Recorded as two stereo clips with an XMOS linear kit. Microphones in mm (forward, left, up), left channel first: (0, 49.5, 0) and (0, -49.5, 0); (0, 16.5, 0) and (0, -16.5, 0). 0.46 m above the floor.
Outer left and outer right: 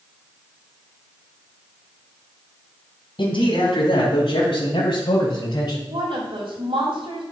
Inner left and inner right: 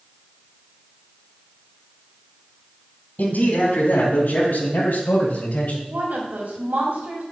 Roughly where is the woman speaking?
Right.